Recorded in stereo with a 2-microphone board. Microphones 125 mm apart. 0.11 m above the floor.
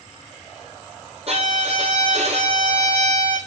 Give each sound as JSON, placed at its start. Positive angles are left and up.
{"t": 1.3, "sound": "a violin", "side_deg": -50, "distance_m": 3.0}